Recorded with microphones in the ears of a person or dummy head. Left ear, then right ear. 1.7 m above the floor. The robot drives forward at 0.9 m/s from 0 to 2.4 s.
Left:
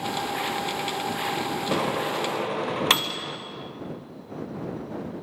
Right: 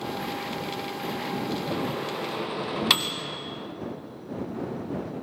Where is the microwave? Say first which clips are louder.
Left 5 dB; 40° left (ahead or behind), 0.6 m; by 3.4 s 20° left (ahead or behind), 1.1 m.